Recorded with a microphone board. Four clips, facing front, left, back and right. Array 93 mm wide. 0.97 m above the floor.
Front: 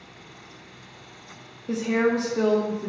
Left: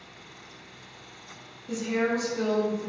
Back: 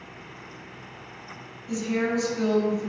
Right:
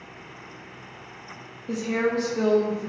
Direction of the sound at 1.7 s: 30° right.